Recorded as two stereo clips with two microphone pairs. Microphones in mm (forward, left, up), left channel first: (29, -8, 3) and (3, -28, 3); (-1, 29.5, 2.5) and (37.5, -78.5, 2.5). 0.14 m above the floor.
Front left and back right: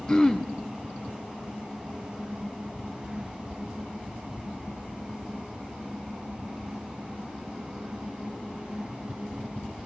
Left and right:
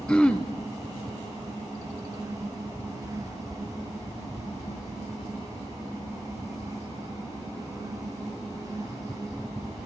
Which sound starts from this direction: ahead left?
Throat clearing, at 0.1 s.